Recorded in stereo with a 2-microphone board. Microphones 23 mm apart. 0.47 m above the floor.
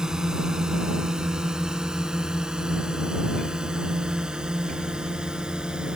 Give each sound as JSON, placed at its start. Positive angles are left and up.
{"t": 0.0, "sound": "a drone", "side_deg": -25}